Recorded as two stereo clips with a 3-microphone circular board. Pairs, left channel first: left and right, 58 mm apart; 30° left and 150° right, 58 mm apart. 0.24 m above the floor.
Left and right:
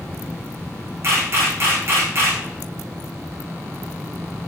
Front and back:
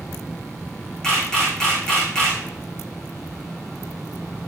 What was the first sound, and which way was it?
A camera shutter, 45° right.